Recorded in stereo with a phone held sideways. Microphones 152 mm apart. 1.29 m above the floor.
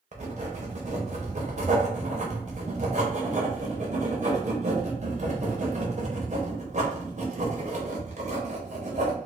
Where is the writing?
50° right (ahead or behind), 0.8 m.